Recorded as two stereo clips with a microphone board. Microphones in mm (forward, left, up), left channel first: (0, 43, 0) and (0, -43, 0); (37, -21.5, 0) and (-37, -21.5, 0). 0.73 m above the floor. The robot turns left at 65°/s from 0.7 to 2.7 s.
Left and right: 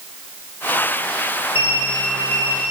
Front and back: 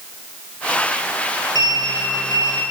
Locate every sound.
1.6 s a sliding door: 150° right, 7 m; by 2.6 s 140° left, 7 m